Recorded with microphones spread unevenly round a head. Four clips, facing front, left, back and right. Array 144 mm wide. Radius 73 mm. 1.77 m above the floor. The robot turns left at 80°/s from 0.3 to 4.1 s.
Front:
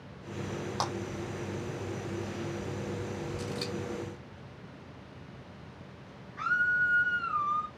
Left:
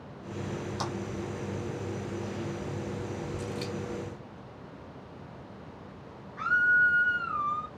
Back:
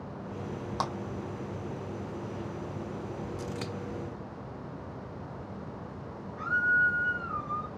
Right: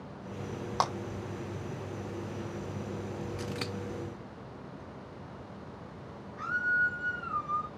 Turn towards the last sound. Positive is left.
turn(degrees=35)